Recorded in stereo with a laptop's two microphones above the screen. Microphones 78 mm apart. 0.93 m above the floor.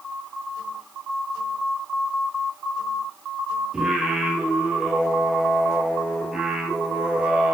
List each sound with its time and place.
3.7 s singing: 10° right (ahead or behind), 4 m